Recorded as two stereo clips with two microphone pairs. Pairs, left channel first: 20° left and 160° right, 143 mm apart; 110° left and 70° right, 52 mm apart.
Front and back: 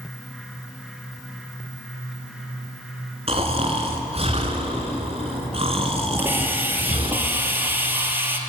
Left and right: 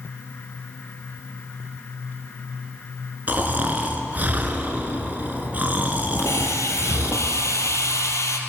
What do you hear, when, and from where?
3.3 s snoring: 125° right, 2.5 m
6.2 s a hiss: 125° left, 2.5 m